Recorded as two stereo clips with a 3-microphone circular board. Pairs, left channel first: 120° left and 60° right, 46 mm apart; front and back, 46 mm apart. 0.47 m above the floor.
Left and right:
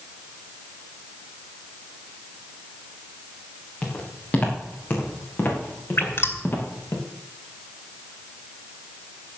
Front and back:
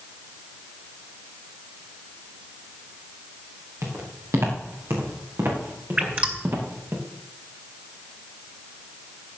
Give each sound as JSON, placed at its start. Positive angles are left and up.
{"t": 3.8, "sound": "footsteps", "azimuth_deg": 180, "distance_m": 5.5}
{"t": 6.0, "sound": "dripping", "azimuth_deg": 130, "distance_m": 2.0}